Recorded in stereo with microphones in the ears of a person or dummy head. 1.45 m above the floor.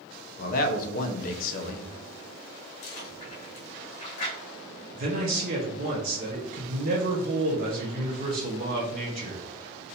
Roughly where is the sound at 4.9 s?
Right.